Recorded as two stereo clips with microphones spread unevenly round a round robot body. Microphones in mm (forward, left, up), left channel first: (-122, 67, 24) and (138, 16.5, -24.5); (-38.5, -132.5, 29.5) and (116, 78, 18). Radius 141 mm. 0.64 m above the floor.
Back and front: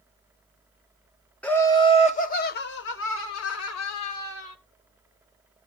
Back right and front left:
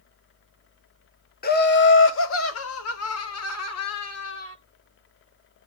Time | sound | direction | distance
1.4 | laughter | 95° right | 1.1 m